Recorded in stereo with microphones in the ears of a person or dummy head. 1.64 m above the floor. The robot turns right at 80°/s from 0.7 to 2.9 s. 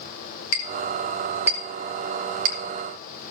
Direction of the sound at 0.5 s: 50° left (ahead or behind).